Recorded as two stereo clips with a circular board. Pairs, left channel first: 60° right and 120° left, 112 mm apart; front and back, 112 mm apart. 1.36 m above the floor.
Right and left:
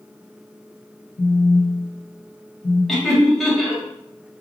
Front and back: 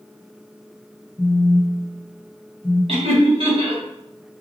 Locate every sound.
1.2 s a phone buzzing: 110° right, 1.7 m
2.9 s laughter: 150° right, 1.3 m